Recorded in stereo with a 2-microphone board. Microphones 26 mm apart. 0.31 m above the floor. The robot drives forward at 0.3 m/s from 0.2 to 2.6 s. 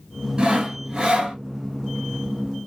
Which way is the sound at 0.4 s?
35° right (ahead or behind).